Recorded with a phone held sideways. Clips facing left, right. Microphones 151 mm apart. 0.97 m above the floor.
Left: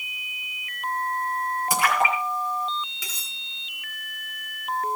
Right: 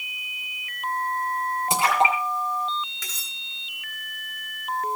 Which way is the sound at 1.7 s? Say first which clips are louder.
Right 2 dB; 25° right (ahead or behind).